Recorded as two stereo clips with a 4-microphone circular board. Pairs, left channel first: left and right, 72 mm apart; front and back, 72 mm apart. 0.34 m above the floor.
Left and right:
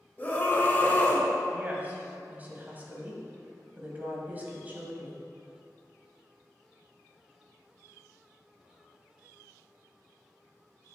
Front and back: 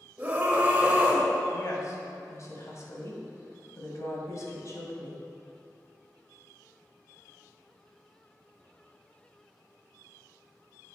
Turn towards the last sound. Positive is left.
turn(degrees=-30)